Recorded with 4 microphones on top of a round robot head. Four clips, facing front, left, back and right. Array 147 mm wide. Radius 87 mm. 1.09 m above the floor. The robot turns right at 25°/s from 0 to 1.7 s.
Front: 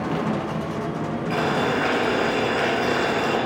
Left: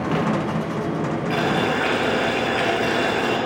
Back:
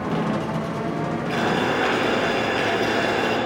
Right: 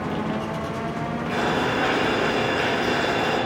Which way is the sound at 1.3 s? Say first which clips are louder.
Left 1 dB, even; 105° left.